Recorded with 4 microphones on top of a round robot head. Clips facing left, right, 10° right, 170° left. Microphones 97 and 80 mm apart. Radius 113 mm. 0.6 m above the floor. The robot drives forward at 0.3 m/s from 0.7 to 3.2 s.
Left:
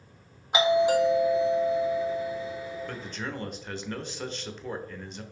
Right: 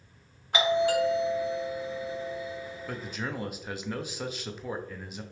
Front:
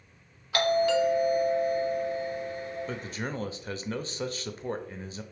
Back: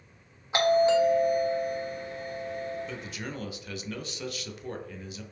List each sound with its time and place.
0.5 s a doorbell: 140° left, 1.1 m; by 2.8 s 165° left, 1.4 m
2.9 s a man speaking: 10° right, 0.6 m